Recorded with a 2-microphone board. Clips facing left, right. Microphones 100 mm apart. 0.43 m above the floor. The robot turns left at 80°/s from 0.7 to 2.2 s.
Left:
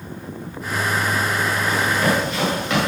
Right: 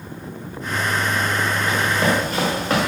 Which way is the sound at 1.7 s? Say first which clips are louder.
Even; 10° right (ahead or behind).